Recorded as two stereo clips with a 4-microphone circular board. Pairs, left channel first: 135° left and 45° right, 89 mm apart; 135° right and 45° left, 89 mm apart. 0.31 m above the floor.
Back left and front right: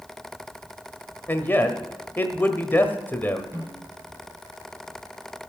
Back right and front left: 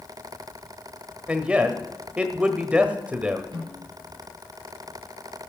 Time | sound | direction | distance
1.3 | a man speaking | 105° left | 1.2 m
3.5 | a snare drum | 15° left | 6 m